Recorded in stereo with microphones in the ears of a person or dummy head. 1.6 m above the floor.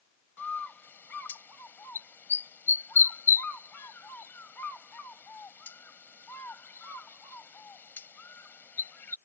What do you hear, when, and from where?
0.4 s a bird: 10° left (ahead or behind)